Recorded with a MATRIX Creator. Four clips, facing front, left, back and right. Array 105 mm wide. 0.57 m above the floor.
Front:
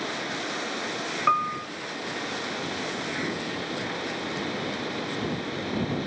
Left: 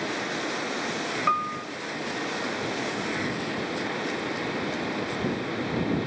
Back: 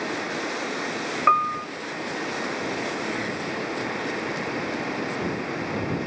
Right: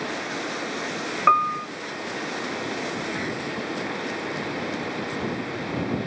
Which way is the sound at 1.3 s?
125° right.